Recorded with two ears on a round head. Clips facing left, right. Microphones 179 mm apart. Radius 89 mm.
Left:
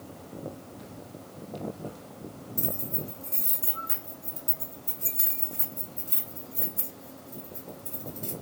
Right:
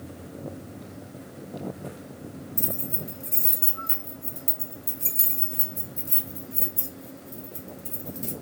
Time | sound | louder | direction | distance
2.6 | keys jangling | left 1 dB | 35° right (ahead or behind) | 1.3 m